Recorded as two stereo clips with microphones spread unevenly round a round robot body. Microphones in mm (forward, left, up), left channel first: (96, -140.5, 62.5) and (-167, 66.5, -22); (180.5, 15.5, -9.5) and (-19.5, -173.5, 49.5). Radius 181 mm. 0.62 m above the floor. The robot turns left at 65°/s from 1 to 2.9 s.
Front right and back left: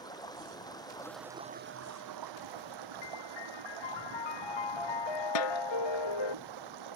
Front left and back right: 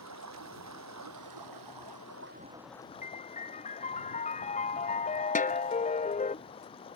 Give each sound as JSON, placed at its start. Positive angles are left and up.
{"t": 0.0, "sound": "running water", "azimuth_deg": -115}
{"t": 3.0, "sound": "a piano", "azimuth_deg": -20}
{"t": 5.3, "sound": "a snare drum", "azimuth_deg": -20}